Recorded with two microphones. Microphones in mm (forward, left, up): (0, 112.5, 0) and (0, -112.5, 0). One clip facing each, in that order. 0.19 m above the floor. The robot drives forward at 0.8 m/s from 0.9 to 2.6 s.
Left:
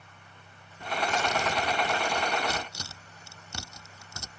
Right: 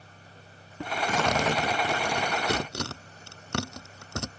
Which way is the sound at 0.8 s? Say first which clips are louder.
Right 2 dB; 80° right.